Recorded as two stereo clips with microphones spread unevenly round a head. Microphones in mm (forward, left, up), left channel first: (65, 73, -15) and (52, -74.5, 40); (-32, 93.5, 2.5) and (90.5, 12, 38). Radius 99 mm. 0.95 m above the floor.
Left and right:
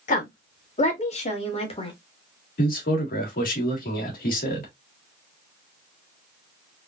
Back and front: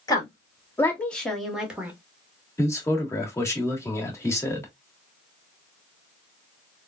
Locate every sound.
0.1 s a woman speaking: 90° left, 1.9 m; by 1.9 s 50° left, 1.6 m
2.6 s a man speaking: 80° left, 1.8 m